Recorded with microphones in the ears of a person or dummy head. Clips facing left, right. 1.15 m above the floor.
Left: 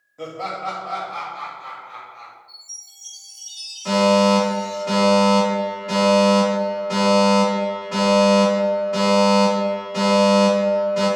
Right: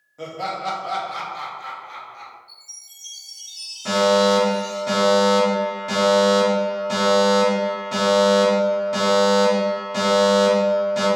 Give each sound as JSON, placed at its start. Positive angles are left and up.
{"t": 0.2, "sound": "laughter", "side_deg": 0, "distance_m": 0.5}
{"t": 2.5, "sound": "a chime", "side_deg": -25, "distance_m": 1.2}
{"t": 3.9, "sound": "a fire alarm", "side_deg": -20, "distance_m": 1.3}